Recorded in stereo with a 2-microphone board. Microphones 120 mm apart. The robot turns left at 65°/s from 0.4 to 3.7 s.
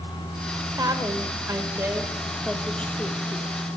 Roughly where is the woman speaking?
Right.